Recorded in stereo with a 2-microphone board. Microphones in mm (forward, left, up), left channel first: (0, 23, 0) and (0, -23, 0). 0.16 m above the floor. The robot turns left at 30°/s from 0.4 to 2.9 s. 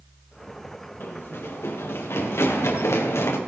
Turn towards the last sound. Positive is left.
turn(degrees=75)  # may be behind; listen again after turning